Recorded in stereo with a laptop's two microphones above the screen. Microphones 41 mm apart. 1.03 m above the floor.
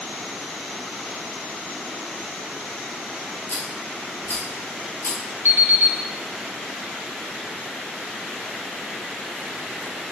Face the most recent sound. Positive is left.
turn(degrees=-80)